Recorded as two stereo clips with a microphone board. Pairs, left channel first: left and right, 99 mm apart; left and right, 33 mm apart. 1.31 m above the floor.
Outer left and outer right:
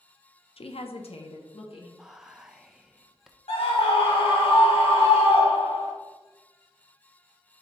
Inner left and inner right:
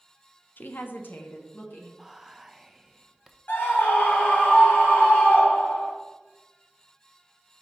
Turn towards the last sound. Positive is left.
turn(degrees=70)  # may be behind; listen again after turning